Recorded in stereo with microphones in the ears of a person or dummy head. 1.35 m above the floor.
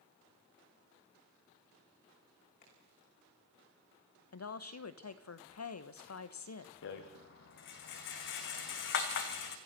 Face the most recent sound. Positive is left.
turn(degrees=60)  # may be behind; listen again after turning